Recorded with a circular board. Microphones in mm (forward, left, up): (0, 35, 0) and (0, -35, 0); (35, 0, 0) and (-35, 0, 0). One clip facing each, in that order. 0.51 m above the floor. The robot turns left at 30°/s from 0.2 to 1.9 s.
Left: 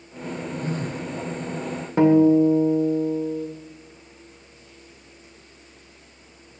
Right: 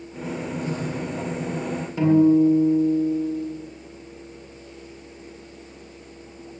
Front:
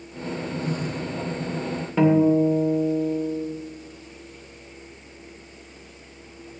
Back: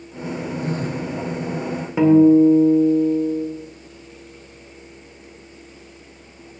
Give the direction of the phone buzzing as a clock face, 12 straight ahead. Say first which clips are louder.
Even, back 4 dB; 7 o'clock.